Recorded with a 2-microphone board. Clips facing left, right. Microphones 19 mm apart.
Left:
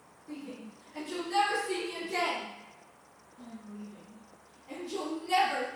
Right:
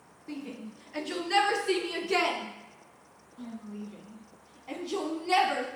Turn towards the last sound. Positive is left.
turn(degrees=-30)  # may be behind; listen again after turning